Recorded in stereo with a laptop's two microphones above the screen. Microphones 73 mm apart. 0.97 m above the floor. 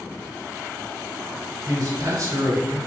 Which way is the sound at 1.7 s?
55° right (ahead or behind).